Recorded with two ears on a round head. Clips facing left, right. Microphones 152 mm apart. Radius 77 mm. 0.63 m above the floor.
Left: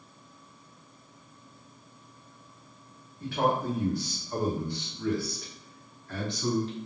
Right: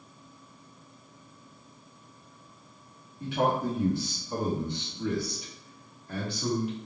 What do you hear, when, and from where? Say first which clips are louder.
3.2 s a man speaking: even; 15° right (ahead or behind), 1.1 m; by 6.7 s 10° right (ahead or behind), 1.4 m